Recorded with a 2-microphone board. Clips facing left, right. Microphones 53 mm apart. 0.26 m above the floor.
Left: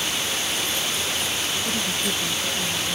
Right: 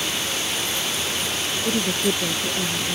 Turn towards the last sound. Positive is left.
turn(degrees=-65)  # may be behind; listen again after turning